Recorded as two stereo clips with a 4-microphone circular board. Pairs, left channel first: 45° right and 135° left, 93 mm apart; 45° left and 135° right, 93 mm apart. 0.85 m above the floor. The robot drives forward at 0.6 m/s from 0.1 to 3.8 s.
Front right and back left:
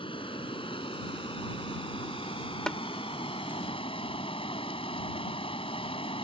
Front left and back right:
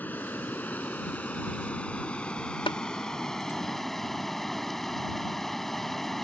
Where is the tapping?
35° left.